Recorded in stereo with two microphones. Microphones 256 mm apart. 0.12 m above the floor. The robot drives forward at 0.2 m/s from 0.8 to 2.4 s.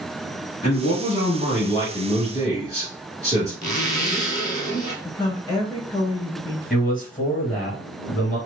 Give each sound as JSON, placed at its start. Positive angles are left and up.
{"t": 0.6, "sound": "a man speaking", "side_deg": 25, "distance_m": 1.3}
{"t": 3.6, "sound": "a zipper", "side_deg": 35, "distance_m": 0.9}
{"t": 5.0, "sound": "a woman speaking", "side_deg": 15, "distance_m": 1.2}
{"t": 6.7, "sound": "a man speaking", "side_deg": 35, "distance_m": 1.5}